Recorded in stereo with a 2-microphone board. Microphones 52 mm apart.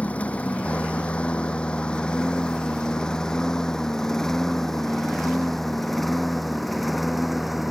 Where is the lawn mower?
25° left (ahead or behind); by 7.7 s 5° right (ahead or behind).